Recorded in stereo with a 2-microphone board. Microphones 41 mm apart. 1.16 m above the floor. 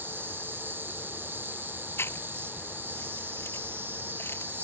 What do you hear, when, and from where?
0.0 s an insect: 65° right (ahead or behind)
2.0 s chewing: 90° left